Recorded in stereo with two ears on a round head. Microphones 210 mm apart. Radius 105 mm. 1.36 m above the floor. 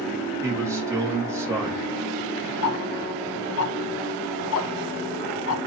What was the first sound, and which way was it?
A man speaking, 10° right (ahead or behind).